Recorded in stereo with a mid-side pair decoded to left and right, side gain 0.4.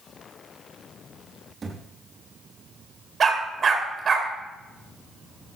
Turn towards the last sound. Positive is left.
turn(degrees=-50)